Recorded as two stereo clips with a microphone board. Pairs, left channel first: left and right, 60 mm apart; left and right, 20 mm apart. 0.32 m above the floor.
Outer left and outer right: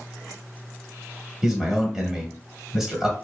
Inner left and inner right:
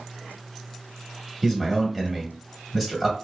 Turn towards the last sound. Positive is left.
turn(degrees=-10)  # may be behind; listen again after turning